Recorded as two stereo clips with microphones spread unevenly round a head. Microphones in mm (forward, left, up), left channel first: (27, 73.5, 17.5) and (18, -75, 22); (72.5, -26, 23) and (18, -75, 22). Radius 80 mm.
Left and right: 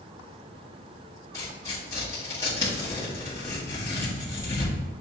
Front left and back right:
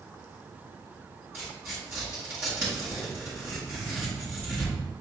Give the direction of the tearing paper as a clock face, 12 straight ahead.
7 o'clock.